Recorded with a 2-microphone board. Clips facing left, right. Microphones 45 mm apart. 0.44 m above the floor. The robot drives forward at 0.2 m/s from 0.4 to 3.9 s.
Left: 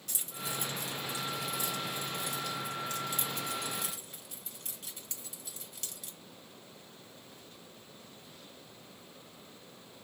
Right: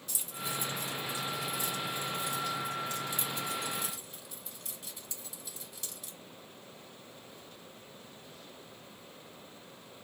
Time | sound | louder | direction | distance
0.1 | keys jangling | right 1 dB | 65° left (ahead or behind) | 1.5 m